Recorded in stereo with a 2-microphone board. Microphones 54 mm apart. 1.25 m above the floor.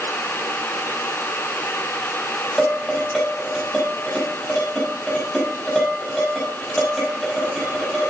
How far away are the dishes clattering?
About 5.5 m.